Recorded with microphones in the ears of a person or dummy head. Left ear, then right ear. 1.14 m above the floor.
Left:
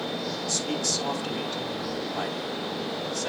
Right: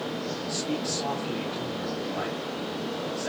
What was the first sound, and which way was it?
A man speaking, 85° left.